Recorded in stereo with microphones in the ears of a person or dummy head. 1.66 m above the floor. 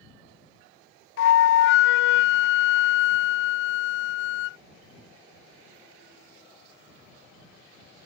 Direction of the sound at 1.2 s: 65° left (ahead or behind).